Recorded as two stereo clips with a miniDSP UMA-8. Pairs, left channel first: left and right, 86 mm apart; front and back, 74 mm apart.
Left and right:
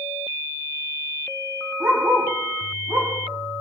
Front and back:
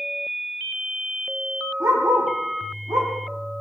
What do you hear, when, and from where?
1.8 s a dog barking: 145° right, 7.5 m